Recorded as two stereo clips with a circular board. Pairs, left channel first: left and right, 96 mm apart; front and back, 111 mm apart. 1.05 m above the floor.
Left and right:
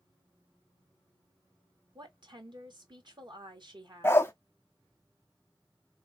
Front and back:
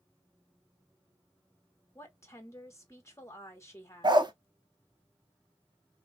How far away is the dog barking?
About 0.7 m.